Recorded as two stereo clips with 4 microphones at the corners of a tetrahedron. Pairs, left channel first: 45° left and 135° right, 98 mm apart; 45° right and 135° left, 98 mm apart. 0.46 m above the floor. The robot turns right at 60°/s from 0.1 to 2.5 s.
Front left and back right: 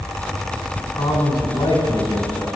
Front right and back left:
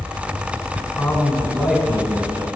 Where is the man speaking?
10° left, 1.8 m; by 2.5 s 110° left, 1.8 m.